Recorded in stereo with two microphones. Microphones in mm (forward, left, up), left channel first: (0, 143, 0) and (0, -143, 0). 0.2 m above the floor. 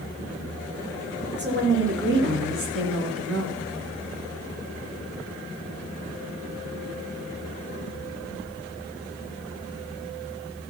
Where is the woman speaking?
40° right (ahead or behind), 3 m; by 3.6 s 55° right (ahead or behind), 3 m.